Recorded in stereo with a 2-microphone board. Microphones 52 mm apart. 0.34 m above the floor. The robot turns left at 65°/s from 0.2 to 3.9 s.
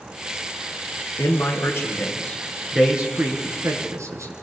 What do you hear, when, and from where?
1.2 s a man speaking: 75° left (ahead or behind), 4 m; by 4.3 s 75° right (ahead or behind), 4 m